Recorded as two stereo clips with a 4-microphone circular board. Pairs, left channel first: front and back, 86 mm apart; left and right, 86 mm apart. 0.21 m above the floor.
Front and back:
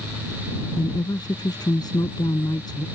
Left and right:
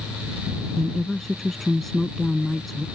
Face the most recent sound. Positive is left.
turn(degrees=0)